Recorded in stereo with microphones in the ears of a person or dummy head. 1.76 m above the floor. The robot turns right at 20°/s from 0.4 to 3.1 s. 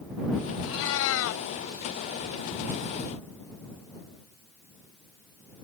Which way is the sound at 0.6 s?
80° left.